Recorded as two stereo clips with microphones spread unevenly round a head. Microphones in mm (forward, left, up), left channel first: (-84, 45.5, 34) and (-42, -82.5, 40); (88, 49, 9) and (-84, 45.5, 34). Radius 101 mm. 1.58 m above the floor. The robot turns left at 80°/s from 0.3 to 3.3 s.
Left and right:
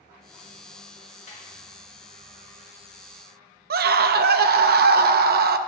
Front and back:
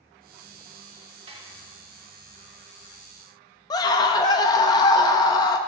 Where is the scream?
70° right, 0.7 m.